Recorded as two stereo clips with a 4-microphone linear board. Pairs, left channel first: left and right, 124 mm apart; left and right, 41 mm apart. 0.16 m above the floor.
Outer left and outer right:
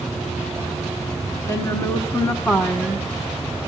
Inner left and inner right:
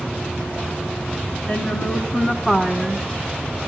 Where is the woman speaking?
20° left (ahead or behind), 2.5 m; by 3.1 s 5° left (ahead or behind), 1.6 m.